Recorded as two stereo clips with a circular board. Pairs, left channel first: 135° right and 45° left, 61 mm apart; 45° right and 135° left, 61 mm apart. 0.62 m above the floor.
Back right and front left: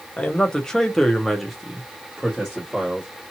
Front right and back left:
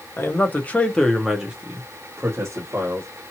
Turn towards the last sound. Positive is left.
turn(degrees=115)